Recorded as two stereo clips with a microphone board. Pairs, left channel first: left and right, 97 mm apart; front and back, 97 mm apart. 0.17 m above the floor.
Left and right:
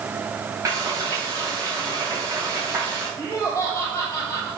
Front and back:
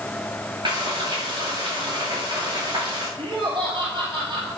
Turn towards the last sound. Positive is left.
turn(degrees=160)